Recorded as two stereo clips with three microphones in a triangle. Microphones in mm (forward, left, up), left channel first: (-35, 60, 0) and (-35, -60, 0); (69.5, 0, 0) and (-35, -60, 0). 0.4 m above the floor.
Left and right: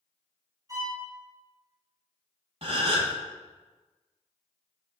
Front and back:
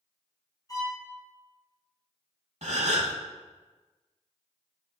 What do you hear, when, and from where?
0.7 s a violin: 30° right, 2.5 m
2.6 s a gasp: 125° right, 0.8 m